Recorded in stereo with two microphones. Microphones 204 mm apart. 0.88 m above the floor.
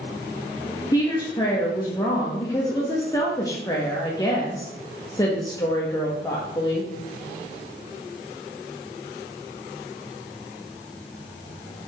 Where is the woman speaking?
15° left (ahead or behind), 1.0 m.